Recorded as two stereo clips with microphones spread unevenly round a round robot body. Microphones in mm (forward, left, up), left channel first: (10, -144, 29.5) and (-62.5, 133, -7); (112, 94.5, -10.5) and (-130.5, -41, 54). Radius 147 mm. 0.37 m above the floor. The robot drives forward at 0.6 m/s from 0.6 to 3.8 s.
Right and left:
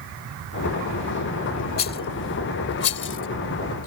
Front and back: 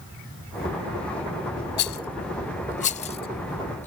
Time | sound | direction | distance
1.8 | a rattle | 15° right | ?